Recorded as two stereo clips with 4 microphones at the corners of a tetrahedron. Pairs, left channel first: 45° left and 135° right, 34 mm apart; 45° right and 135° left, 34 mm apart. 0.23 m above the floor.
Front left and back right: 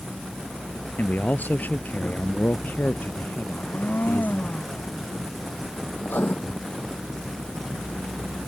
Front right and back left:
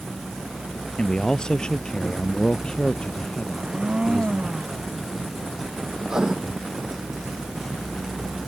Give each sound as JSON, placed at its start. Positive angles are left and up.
{"t": 1.0, "sound": "a man speaking", "azimuth_deg": 20}
{"t": 3.5, "sound": "a blender", "azimuth_deg": 75}
{"t": 6.0, "sound": "writing", "azimuth_deg": 60}